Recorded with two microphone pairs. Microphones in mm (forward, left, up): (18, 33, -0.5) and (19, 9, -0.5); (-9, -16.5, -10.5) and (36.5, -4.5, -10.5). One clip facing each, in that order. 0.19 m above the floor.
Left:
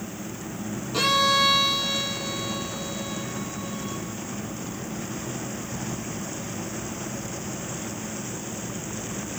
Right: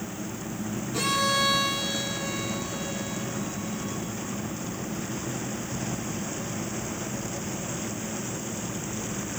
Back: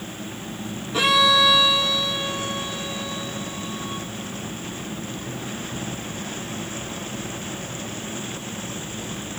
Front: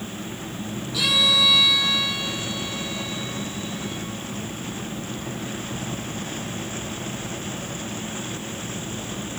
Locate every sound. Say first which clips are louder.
0.9 s a violin: left 5 dB, back 4 dB; 145° left, 2.0 m